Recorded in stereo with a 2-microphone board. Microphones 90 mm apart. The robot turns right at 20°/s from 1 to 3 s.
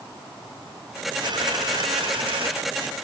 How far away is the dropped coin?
About 9.5 m.